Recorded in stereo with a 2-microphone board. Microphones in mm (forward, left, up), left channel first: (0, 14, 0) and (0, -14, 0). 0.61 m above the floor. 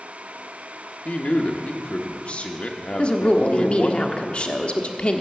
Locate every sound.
1.1 s a man speaking: 50° left (ahead or behind), 1.1 m
3.0 s a woman speaking: 45° left (ahead or behind), 1.1 m